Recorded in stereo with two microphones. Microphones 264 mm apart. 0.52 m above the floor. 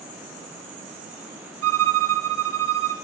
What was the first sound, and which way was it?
A violin, 60° right (ahead or behind).